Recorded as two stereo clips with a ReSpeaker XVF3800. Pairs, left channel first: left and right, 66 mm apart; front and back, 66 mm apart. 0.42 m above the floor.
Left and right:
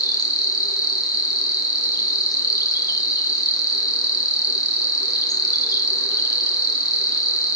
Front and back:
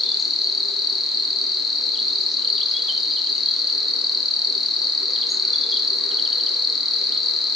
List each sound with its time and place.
0.0 s an insect: 90° left, 1.4 m